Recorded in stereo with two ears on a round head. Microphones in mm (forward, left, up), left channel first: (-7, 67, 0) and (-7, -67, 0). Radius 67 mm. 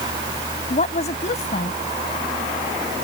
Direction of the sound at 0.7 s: 45° left (ahead or behind).